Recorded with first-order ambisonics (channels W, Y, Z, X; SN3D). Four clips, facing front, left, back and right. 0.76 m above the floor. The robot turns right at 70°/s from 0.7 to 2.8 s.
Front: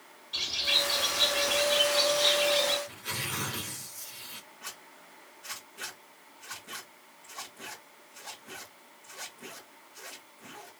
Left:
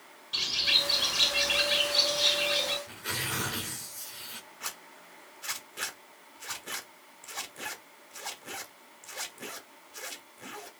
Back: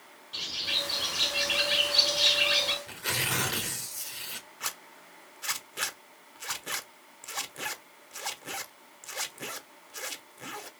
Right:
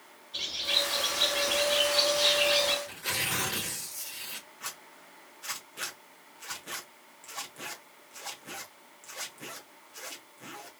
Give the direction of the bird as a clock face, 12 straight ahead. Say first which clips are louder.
Left 3 dB, front 3 dB; 9 o'clock.